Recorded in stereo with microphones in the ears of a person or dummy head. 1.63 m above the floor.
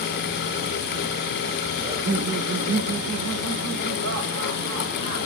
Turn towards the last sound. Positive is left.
turn(degrees=-65)  # may be behind; listen again after turning